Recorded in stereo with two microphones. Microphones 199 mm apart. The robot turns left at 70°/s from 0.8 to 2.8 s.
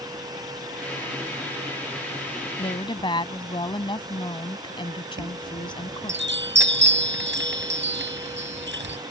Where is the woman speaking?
30° left (ahead or behind); by 6.2 s 25° left (ahead or behind).